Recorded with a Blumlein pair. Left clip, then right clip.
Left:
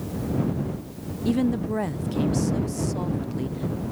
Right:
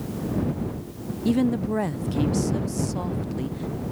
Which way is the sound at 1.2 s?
5° right.